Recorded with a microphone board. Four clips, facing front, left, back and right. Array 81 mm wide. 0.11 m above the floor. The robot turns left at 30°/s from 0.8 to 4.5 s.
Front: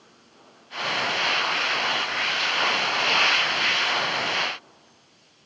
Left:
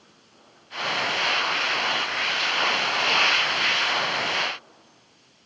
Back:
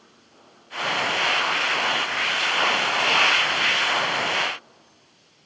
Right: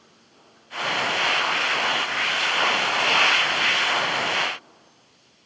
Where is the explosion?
I don't hear an explosion.